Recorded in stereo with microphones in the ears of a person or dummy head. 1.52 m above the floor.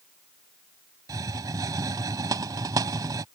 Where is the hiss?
15° right (ahead or behind).